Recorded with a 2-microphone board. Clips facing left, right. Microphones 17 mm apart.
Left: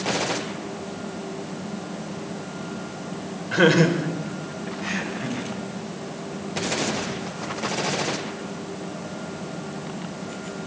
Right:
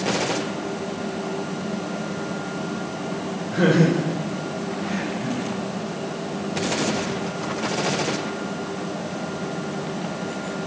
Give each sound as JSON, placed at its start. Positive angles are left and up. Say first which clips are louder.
{"t": 3.5, "sound": "laughter", "louder": "left 1 dB", "side_deg": 55, "distance_m": 4.0}